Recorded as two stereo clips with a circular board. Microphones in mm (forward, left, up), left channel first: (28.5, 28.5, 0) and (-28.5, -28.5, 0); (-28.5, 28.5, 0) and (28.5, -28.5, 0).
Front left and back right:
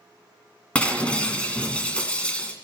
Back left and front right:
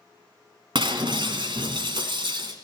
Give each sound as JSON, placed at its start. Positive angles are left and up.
{"t": 0.8, "sound": "breaking glass", "azimuth_deg": -30, "distance_m": 2.0}